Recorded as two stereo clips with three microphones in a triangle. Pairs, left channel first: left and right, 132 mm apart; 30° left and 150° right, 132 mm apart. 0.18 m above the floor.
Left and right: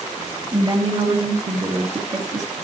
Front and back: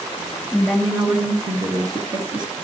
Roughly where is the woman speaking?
Ahead right.